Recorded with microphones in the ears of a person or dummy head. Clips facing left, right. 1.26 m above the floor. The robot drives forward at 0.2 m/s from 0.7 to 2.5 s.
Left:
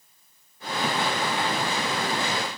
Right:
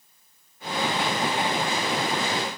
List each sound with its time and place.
Only background noise.